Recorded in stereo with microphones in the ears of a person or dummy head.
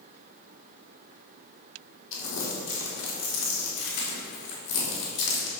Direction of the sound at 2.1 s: 65° left (ahead or behind).